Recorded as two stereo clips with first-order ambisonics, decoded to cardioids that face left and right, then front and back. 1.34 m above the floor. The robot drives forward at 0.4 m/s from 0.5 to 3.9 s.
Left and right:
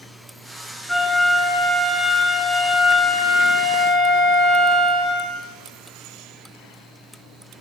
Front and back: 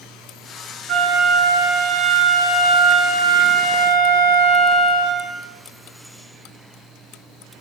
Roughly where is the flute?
Behind.